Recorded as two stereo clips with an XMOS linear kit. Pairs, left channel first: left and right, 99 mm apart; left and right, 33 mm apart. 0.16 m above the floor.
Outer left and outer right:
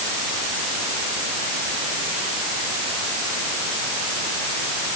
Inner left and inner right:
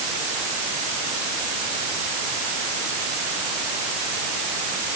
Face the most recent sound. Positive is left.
No sound to turn to.